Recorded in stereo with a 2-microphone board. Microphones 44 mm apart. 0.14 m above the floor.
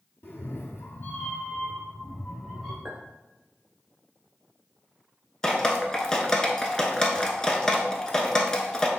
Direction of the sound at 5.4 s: 15° left (ahead or behind).